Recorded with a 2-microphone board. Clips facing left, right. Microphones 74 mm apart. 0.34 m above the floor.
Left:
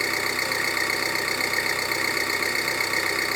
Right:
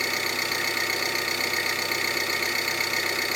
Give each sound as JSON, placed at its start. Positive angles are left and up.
{"t": 0.0, "sound": "an engine running", "side_deg": 30, "distance_m": 2.0}